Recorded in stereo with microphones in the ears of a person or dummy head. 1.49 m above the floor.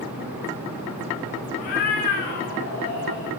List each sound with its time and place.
1.6 s a cat meowing: 45° left (ahead or behind), 5 m; by 3.4 s 55° left (ahead or behind), 7 m